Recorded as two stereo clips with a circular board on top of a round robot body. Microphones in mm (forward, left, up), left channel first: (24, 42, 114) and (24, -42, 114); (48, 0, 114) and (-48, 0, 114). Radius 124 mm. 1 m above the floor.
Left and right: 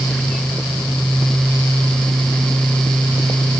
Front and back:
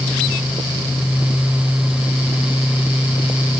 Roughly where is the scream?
I don't hear a scream.